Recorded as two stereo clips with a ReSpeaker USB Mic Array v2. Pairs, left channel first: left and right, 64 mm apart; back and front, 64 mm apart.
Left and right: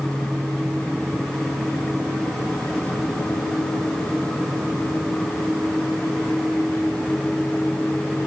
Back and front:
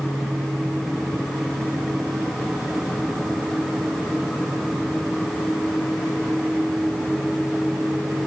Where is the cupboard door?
I don't hear a cupboard door.